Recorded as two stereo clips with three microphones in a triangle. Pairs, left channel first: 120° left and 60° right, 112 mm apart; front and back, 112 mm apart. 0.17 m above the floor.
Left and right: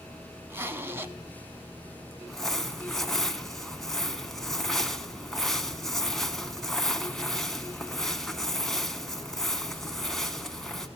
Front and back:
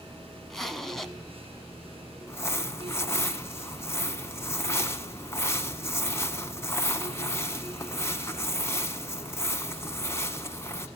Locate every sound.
0.5 s a zipper: 85° right, 0.9 m
2.3 s crumpling: 40° left, 1.0 m